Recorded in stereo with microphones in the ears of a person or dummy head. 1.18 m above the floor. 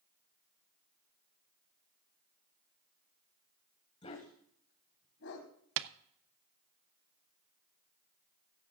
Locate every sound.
4.0 s a dog barking: 30° left (ahead or behind), 2.5 m; by 5.5 s 75° left (ahead or behind), 3 m
5.8 s tapping: 70° right (ahead or behind), 0.7 m